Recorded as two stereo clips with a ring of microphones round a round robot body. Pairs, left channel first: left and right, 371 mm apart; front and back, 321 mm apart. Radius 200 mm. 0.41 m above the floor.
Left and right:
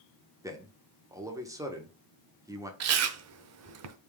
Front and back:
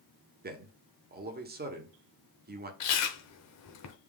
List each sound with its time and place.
0.4 s a man speaking: 165° right, 1.0 m
2.8 s chewing: 40° right, 0.6 m